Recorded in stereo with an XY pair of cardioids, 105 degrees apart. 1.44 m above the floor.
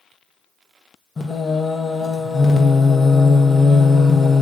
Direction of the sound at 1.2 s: 35° left.